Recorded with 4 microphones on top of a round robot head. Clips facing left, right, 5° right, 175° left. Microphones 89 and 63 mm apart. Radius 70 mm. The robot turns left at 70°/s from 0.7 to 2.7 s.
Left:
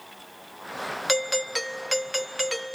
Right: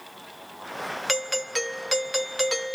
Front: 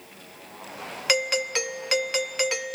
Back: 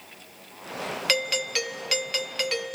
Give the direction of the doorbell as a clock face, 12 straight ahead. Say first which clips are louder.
Left 4 dB, front 3 dB; 11 o'clock.